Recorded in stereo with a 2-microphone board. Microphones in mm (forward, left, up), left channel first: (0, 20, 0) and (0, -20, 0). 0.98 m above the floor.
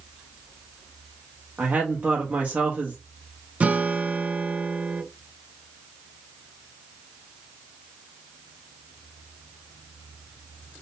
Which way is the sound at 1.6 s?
45° right (ahead or behind).